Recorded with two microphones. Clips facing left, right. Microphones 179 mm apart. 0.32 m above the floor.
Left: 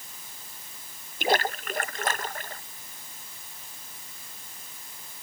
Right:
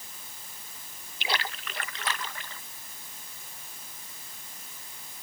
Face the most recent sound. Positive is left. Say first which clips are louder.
# left 9 dB
turn(degrees=45)  # may be behind; listen again after turning